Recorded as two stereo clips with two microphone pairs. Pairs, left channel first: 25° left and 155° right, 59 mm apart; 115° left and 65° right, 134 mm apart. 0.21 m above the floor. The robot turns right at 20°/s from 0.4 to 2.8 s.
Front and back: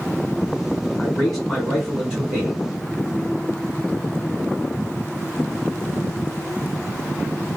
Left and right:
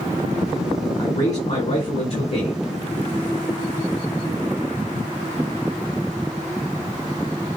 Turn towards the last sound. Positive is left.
turn(degrees=140)